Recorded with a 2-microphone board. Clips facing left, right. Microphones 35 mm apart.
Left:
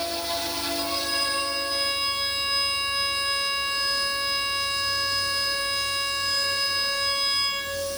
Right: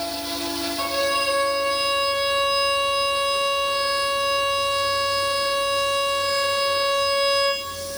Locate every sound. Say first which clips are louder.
0.8 s a violin: right 8 dB; 30° right (ahead or behind), 6.5 m